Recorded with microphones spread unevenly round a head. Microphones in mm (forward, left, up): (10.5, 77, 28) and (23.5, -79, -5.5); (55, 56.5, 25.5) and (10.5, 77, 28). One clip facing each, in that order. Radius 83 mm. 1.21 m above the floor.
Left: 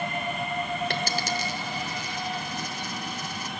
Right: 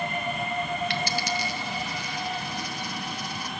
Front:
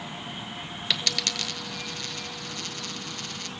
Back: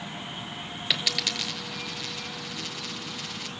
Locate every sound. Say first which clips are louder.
0.9 s a dropped coin: even, even; 75° left, 1.9 m